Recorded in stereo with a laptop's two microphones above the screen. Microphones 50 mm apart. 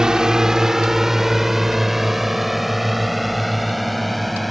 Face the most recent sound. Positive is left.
turn(degrees=0)  # may be behind; listen again after turning